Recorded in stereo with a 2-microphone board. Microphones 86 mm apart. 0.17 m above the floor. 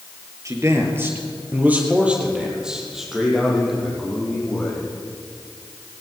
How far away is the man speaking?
About 4 m.